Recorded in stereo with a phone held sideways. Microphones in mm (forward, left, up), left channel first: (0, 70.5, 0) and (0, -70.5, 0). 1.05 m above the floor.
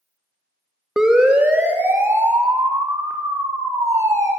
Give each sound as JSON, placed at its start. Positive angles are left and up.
{"t": 1.0, "sound": "a siren", "side_deg": -5, "distance_m": 2.0}